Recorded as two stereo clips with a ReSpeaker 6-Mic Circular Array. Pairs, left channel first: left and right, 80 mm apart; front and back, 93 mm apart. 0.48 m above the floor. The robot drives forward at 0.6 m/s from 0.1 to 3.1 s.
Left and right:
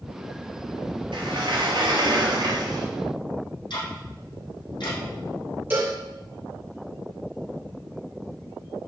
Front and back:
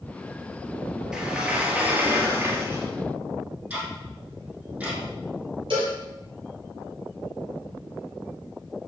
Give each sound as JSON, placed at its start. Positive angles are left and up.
{"t": 1.1, "sound": "a sliding door", "azimuth_deg": -100, "distance_m": 2.5}
{"t": 3.7, "sound": "ticking", "azimuth_deg": 105, "distance_m": 4.0}
{"t": 5.7, "sound": "a cowbell", "azimuth_deg": -155, "distance_m": 4.5}